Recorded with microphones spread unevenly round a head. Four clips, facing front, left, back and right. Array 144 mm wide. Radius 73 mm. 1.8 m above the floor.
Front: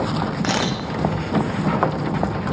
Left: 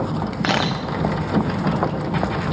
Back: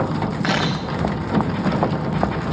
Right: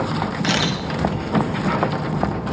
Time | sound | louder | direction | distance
0.4 | a camera shutter | left 3 dB, back 3 dB | 75° left | 1.1 m